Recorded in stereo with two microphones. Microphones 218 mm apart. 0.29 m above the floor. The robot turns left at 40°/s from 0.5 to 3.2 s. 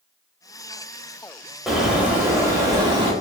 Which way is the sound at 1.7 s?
Centre (ahead or behind).